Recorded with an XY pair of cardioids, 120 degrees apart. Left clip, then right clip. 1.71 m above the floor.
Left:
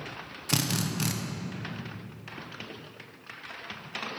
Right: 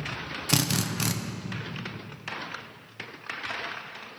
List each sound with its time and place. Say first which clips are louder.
0.5 s a drill: right 2 dB; 20° right, 1.1 m